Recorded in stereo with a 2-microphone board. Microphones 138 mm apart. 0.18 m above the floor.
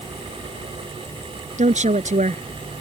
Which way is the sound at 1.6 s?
60° right (ahead or behind).